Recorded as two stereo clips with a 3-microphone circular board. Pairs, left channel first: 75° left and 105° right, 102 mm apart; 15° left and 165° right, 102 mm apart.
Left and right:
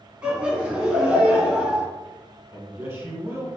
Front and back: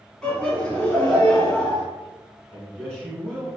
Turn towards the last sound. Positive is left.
turn(degrees=-60)